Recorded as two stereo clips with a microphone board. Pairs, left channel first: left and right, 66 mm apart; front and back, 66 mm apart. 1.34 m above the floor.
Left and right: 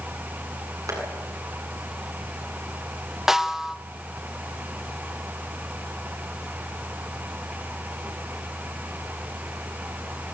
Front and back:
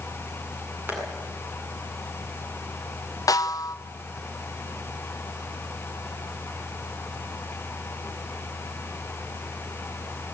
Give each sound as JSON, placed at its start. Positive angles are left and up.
{"t": 0.9, "sound": "tapping", "azimuth_deg": -120, "distance_m": 8.5}
{"t": 3.3, "sound": "a snare drum", "azimuth_deg": -10, "distance_m": 1.1}